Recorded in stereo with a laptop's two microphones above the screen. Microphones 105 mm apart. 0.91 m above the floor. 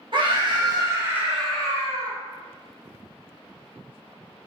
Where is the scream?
50° right (ahead or behind), 1.0 m; by 2.1 s 35° left (ahead or behind), 0.7 m.